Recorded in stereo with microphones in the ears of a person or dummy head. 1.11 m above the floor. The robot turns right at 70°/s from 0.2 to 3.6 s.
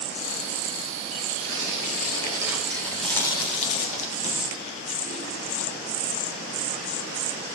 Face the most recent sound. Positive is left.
turn(degrees=35)  # may be behind; listen again after turning